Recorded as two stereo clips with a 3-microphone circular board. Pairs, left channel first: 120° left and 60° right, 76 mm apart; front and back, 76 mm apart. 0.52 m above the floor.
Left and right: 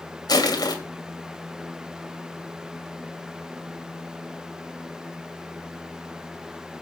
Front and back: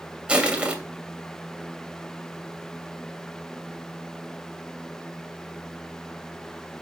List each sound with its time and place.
0.3 s crushing: 105° left, 2.5 m